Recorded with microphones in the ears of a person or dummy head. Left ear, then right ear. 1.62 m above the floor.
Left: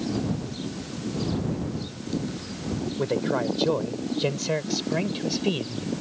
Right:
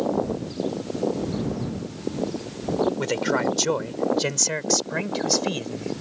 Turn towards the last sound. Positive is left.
turn(degrees=-60)  # may be behind; listen again after turning